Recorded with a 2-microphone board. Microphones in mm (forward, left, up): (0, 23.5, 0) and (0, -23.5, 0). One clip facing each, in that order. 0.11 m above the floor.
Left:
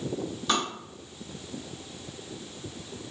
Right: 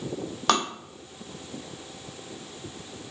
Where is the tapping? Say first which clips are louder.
Right 4 dB; 75° right (ahead or behind), 0.8 m.